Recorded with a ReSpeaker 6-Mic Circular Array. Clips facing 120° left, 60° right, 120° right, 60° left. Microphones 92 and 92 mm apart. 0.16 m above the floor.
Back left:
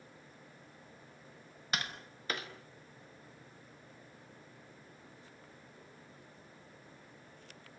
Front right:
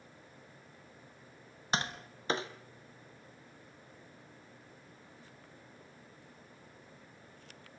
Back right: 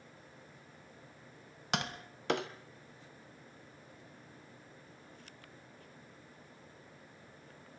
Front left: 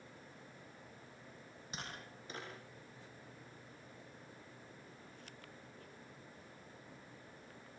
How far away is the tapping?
About 1.4 m.